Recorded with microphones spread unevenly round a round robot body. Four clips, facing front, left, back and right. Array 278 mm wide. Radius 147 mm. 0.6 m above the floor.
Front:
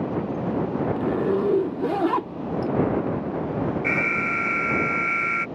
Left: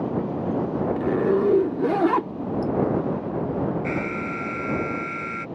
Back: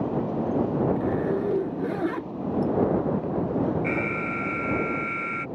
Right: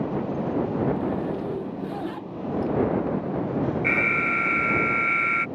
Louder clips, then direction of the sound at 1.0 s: Left 6 dB, front 3 dB; 65° left.